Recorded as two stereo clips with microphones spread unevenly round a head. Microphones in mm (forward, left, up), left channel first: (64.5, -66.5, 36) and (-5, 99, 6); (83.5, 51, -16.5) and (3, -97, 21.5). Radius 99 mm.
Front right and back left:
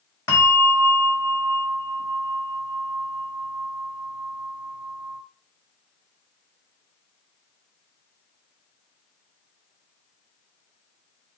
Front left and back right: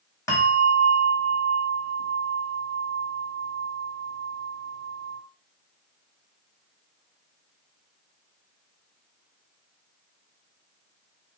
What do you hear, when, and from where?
0.3 s a bell: 15° right, 1.6 m